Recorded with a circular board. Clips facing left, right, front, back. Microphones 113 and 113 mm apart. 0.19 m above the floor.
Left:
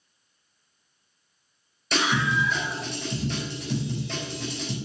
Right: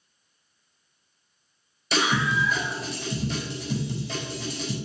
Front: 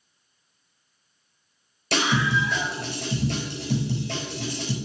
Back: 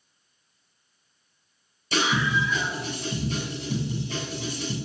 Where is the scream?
Straight ahead, 4 m.